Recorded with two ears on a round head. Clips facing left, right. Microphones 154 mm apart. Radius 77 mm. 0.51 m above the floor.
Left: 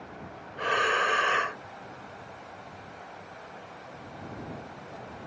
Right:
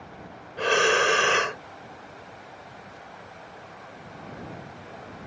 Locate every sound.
0.6 s breathing: 45° right (ahead or behind)